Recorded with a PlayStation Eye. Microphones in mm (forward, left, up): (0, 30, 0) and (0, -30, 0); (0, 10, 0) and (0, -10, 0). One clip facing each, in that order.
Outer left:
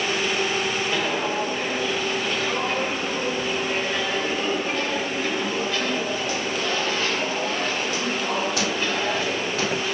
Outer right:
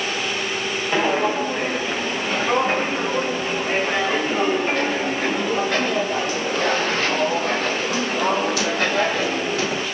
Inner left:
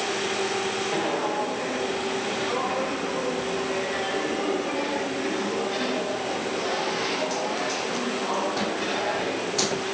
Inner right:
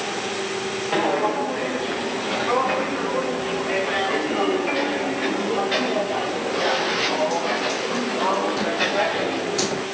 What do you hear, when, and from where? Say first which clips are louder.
0.9 s footsteps: outer right 5 dB, inner right 8 dB; 35° right (ahead or behind), 8 m; by 9.9 s 80° right, 12 m